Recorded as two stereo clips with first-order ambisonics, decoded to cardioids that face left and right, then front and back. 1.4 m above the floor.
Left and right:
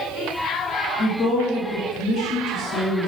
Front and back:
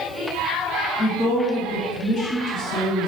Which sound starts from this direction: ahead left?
A woman speaking, at 1.0 s.